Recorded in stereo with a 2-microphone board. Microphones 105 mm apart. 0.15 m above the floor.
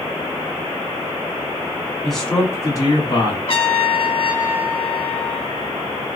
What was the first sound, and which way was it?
A man speaking, centre (ahead or behind).